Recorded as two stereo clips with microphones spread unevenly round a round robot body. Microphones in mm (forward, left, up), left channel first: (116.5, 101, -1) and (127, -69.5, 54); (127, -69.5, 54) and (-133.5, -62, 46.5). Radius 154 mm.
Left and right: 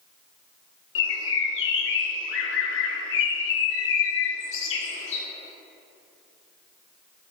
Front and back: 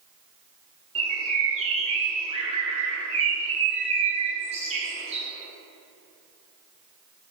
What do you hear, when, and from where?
0.9 s a bird: 105° left, 0.5 m